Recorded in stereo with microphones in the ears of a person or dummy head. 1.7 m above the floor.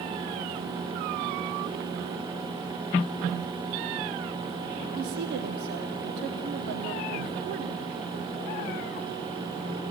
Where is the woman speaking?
55° right (ahead or behind), 0.6 m.